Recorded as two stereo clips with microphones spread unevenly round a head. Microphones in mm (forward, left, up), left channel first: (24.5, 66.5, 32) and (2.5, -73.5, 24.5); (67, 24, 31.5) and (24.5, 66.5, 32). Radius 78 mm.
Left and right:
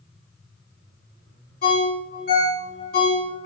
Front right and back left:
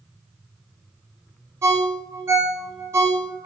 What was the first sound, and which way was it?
A ringtone, 100° left.